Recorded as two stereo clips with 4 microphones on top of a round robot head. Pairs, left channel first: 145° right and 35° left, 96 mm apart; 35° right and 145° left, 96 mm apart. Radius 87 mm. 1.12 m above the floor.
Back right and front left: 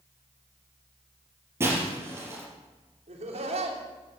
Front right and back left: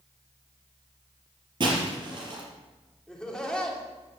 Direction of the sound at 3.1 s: 50° left.